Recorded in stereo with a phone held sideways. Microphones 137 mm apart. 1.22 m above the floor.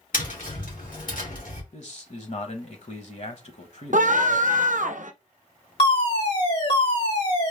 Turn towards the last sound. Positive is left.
turn(degrees=45)  # may be behind; listen again after turning